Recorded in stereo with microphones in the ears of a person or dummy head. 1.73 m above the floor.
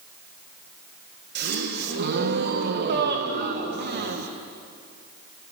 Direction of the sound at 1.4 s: 60° right (ahead or behind).